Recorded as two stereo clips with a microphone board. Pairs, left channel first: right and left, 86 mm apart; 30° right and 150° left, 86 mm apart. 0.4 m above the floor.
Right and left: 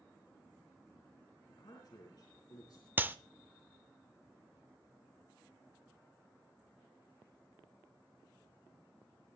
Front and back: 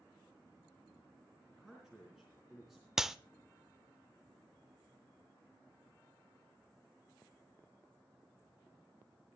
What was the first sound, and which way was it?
A man speaking, 125° right.